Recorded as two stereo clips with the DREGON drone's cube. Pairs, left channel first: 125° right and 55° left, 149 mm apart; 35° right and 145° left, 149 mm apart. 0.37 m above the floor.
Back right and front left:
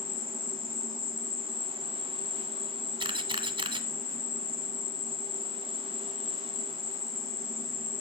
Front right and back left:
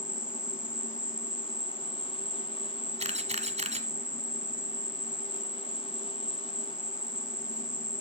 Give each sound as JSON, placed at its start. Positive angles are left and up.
{"t": 0.0, "sound": "an insect", "azimuth_deg": 60, "distance_m": 1.3}
{"t": 3.0, "sound": "a camera shutter", "azimuth_deg": 110, "distance_m": 1.5}